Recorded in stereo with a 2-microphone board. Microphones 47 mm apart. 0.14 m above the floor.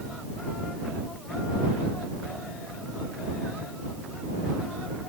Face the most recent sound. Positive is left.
No sound to turn to.